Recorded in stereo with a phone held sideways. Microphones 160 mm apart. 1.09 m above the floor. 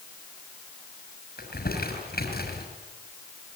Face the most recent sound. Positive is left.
turn(degrees=80)